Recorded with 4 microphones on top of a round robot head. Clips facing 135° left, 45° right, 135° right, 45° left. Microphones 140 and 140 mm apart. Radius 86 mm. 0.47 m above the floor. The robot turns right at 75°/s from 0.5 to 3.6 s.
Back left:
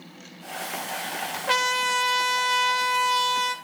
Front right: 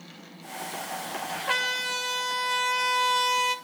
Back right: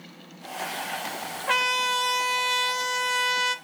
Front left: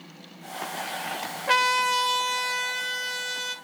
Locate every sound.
1.5 s a trumpet: 90° left, 2 m; by 3.5 s 115° right, 2 m